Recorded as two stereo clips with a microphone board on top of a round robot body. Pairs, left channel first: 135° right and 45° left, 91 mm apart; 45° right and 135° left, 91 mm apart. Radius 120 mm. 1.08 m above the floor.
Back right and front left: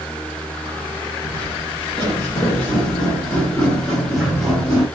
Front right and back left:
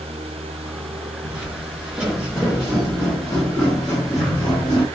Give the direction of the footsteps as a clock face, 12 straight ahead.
5 o'clock.